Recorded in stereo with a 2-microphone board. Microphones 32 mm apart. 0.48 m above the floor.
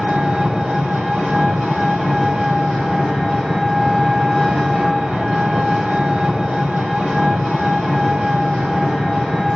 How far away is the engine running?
About 2.5 m.